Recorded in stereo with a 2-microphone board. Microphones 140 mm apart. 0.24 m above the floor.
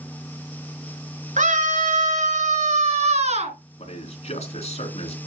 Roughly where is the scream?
Right.